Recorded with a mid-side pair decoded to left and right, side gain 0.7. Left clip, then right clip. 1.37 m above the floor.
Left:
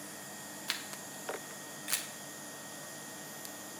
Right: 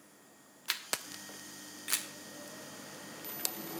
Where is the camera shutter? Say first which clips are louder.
Right 3 dB; 10° right, 1.0 m.